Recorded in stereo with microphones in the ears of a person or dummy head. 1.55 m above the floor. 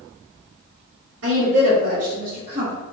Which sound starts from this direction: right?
A woman speaking, at 1.2 s.